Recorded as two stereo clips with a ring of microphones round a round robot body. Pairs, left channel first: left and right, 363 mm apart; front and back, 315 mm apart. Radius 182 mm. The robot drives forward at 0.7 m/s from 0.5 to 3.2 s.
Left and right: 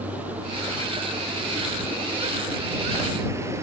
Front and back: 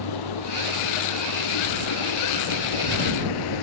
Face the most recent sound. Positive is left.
turn(degrees=-5)